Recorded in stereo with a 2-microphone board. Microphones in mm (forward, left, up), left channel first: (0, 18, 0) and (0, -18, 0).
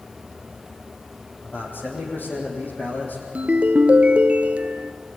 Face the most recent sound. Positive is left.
turn(degrees=-35)  # may be behind; listen again after turning